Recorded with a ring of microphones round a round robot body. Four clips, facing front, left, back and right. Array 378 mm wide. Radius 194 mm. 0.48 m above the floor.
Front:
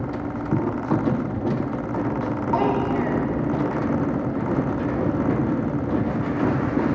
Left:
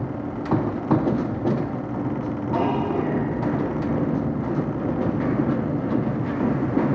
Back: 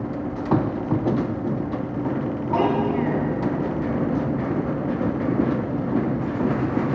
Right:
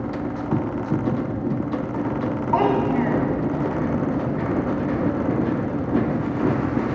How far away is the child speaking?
About 2.5 m.